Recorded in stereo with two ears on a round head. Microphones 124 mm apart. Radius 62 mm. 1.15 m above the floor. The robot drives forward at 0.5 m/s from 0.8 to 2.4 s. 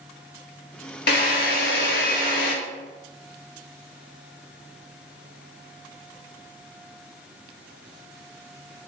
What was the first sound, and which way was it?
A drill, 85° left.